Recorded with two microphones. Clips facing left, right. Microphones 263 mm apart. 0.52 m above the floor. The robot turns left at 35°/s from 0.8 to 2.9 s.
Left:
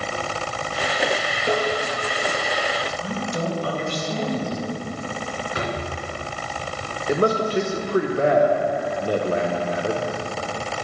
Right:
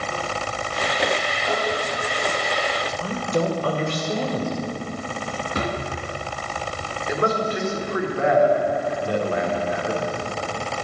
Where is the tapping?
70° left (ahead or behind), 1.8 m; by 1.7 s 65° left (ahead or behind), 1.8 m.